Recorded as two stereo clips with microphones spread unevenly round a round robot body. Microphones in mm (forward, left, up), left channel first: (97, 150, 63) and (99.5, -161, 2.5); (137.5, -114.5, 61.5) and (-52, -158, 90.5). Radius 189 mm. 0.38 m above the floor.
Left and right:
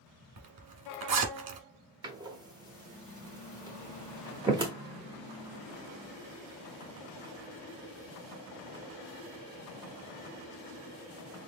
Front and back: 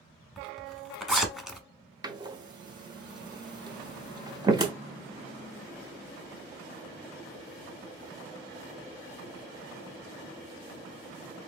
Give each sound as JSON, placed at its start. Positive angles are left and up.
{"t": 0.4, "sound": "a zipper", "azimuth_deg": -80, "distance_m": 1.2}
{"t": 2.0, "sound": "a door slam", "azimuth_deg": -105, "distance_m": 0.8}